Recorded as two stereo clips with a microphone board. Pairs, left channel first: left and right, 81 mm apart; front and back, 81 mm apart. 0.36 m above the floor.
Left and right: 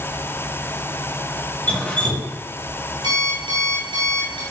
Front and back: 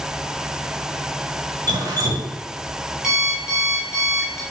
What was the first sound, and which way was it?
Dripping, 160° left.